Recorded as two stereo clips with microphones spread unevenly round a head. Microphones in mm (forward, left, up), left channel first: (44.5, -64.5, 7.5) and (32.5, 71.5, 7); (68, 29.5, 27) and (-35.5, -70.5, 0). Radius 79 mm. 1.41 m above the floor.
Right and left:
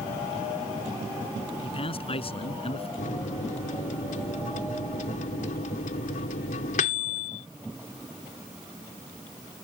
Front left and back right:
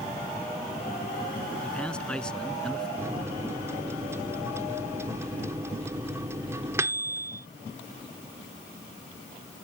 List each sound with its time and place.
1.6 s a man speaking: 40° right
3.0 s a microwave: 60° right